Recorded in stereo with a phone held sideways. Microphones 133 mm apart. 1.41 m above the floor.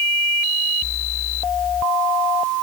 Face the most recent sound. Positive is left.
No sound to turn to.